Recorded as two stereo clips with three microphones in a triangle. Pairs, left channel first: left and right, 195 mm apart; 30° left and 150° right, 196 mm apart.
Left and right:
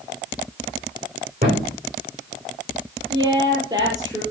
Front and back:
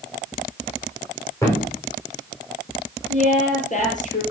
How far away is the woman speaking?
About 7.5 m.